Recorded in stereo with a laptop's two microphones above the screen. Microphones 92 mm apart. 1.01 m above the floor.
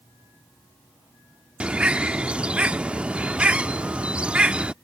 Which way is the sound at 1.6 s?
10° right (ahead or behind).